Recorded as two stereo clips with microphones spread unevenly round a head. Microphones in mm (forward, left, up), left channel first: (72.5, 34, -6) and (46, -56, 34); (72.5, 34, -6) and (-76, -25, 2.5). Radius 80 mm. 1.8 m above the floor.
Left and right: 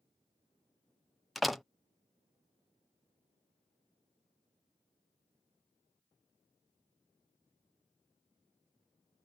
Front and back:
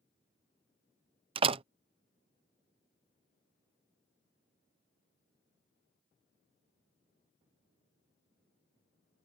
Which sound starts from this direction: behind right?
A door slam, at 1.4 s.